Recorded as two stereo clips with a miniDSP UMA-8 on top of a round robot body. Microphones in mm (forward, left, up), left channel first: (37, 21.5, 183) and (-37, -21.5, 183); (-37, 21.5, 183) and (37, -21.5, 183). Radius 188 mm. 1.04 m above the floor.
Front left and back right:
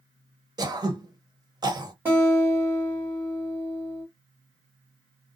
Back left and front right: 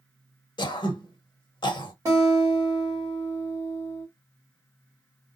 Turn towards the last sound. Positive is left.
turn(degrees=-85)